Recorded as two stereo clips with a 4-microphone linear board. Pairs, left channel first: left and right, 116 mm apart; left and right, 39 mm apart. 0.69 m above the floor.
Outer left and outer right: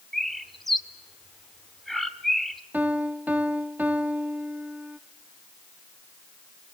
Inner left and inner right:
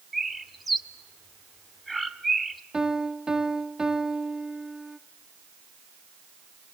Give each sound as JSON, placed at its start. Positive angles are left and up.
{"t": 0.1, "sound": "a bird", "side_deg": 0, "distance_m": 1.3}
{"t": 2.7, "sound": "a piano", "side_deg": -15, "distance_m": 1.2}